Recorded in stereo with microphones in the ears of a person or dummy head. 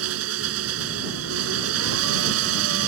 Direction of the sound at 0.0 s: 85° right.